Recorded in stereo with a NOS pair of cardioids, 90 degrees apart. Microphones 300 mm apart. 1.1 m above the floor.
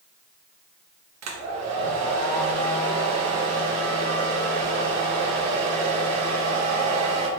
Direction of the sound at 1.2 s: 60° right.